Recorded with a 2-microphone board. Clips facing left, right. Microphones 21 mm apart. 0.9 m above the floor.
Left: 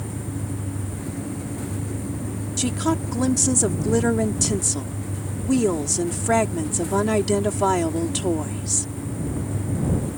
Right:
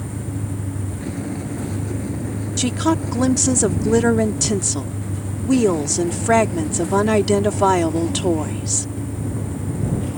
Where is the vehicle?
25° right (ahead or behind); by 10.2 s 70° right (ahead or behind).